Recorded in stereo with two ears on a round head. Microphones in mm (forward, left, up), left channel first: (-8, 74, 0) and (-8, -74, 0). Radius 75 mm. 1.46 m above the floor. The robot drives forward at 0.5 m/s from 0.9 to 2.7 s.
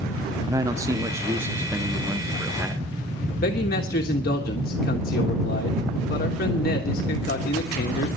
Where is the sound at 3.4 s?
60° left (ahead or behind), 1.6 m.